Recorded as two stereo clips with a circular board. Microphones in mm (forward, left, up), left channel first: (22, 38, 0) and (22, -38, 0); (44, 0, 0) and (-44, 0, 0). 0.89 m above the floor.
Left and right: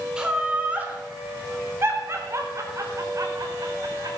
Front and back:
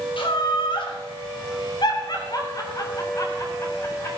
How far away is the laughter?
About 3 m.